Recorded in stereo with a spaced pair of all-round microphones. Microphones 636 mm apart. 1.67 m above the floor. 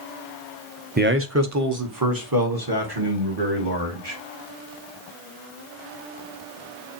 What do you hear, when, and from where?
1.0 s a man speaking: 15° right (ahead or behind), 0.7 m; by 4.2 s 40° right (ahead or behind), 2.5 m